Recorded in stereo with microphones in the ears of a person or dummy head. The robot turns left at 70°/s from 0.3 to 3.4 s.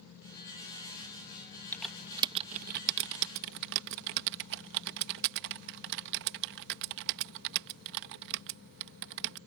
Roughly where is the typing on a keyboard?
Centre.